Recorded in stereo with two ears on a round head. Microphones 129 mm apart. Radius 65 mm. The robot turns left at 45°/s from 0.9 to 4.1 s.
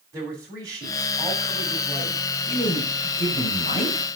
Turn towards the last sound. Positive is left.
turn(degrees=40)